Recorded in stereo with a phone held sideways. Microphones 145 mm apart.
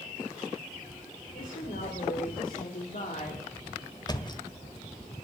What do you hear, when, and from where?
1.3 s a woman speaking: 70° left (ahead or behind), 3.5 m; by 4.0 s 35° left (ahead or behind), 3 m
4.1 s a thud: 30° left (ahead or behind), 1.2 m